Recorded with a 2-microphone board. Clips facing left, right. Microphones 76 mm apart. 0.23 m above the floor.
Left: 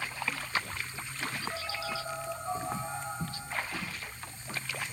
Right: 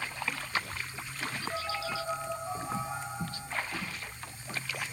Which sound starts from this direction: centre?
A phone buzzing, at 1.5 s.